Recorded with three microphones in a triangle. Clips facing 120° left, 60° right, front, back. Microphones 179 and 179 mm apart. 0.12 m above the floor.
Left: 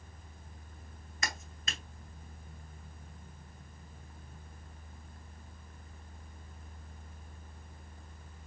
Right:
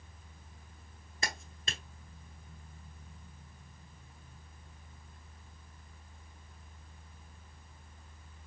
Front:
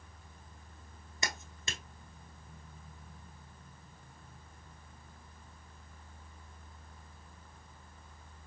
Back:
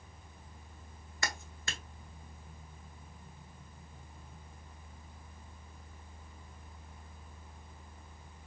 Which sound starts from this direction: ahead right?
A clap, at 1.2 s.